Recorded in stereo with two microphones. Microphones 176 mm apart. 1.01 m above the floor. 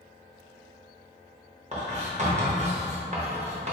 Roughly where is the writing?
Right.